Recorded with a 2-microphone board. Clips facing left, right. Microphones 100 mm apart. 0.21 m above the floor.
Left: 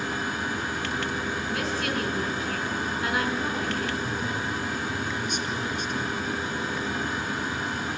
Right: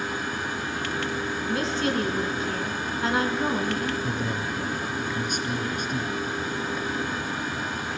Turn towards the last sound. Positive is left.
turn(degrees=-50)  # may be behind; listen again after turning